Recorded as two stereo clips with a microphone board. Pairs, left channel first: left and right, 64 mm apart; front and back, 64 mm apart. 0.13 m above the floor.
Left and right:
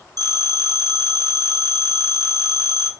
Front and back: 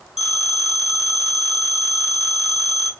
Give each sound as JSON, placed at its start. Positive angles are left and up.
{"t": 0.2, "sound": "a phone ringing", "azimuth_deg": -95, "distance_m": 2.5}